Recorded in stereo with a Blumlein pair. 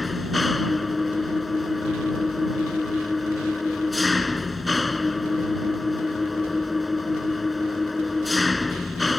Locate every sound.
0.0 s an engine running: 10° left